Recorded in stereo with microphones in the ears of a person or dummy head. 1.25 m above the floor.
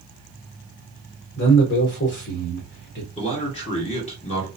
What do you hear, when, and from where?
1.4 s a man speaking: 50° left (ahead or behind), 0.9 m
3.2 s a man speaking: 30° left (ahead or behind), 1.5 m